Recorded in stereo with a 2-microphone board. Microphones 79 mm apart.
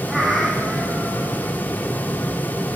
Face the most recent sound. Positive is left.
turn(degrees=0)  # may be behind; listen again after turning